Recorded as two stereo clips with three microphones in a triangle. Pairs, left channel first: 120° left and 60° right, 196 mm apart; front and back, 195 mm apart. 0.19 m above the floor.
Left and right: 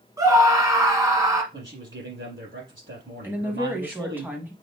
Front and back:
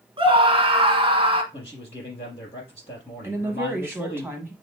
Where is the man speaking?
60° right, 4.5 m.